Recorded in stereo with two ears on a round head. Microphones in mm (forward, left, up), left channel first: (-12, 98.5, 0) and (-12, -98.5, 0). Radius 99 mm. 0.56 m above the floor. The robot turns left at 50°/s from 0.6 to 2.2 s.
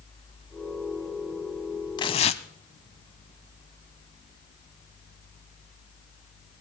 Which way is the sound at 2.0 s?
20° left (ahead or behind).